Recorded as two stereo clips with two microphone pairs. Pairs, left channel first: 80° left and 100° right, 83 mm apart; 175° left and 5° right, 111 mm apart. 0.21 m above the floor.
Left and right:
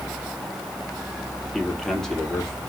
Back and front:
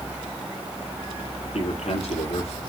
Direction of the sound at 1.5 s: 165° left.